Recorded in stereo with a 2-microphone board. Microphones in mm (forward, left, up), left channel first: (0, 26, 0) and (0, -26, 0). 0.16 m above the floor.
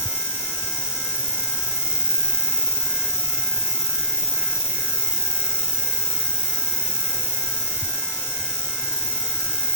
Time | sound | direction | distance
0.0 | an insect | 65° right (ahead or behind) | ?